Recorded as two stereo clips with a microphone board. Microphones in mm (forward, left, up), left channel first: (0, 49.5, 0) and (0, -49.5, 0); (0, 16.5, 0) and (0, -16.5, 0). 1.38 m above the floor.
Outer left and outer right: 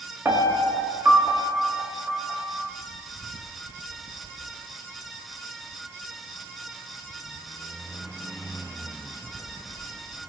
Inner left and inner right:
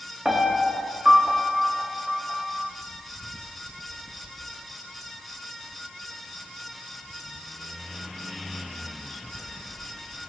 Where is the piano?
25° right (ahead or behind), 1.8 m.